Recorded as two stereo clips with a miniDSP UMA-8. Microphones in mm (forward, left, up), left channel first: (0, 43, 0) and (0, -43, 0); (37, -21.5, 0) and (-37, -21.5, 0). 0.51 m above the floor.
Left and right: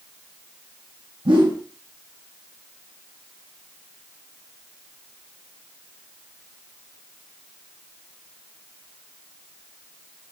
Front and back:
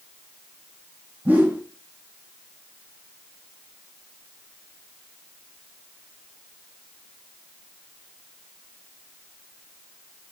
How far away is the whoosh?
About 5 m.